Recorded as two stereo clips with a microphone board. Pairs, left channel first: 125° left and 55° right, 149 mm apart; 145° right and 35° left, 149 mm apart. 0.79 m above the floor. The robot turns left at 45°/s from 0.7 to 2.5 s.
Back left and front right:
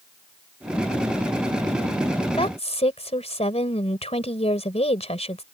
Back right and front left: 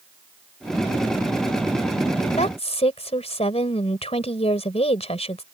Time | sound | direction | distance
2.3 | a woman speaking | 175° left | ?